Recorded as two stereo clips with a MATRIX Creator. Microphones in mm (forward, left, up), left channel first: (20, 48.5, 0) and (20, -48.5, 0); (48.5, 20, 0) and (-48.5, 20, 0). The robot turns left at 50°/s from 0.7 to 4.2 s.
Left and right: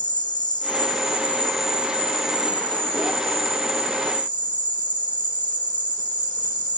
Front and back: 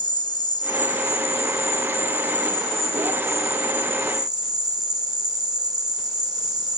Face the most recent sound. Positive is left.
turn(degrees=-130)